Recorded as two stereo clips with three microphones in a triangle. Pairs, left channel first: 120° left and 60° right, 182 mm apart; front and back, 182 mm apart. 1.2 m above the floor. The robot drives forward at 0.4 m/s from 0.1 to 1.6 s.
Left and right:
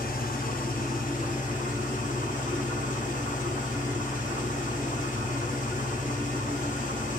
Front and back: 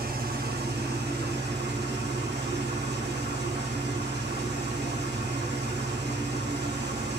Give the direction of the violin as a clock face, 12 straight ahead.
I don't hear a violin.